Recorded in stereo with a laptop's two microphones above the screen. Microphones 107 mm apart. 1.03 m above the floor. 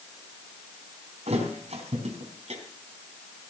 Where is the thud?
80° right, 4 m.